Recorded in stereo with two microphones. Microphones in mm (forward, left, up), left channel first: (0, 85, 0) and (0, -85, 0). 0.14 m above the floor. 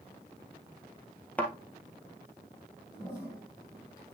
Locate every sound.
1.4 s a thud: 10° left (ahead or behind), 1.4 m
2.9 s a toilet flushing: 25° left (ahead or behind), 4.5 m